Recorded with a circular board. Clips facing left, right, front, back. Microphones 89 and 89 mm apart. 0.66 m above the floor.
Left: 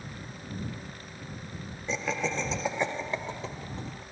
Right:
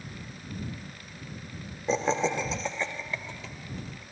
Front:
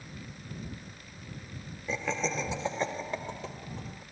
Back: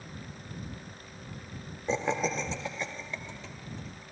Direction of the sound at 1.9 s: 130° right.